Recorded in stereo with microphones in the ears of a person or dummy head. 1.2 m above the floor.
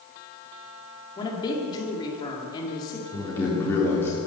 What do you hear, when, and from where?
1.2 s a woman speaking: 30° left (ahead or behind), 2 m
3.1 s a man speaking: 15° left (ahead or behind), 3.5 m